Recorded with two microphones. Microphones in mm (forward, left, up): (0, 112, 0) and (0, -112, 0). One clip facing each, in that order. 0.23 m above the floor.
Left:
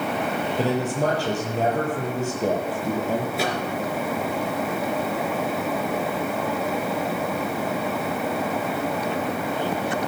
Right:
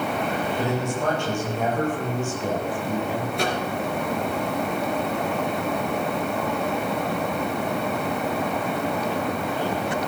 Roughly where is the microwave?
Centre.